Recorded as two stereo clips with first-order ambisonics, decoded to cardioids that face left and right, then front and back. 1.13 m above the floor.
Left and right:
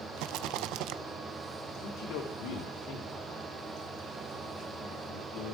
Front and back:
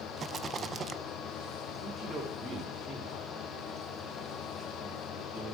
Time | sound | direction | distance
0.2 | a rattle | 115° right | 0.5 m
1.8 | a man speaking | 100° left | 3.5 m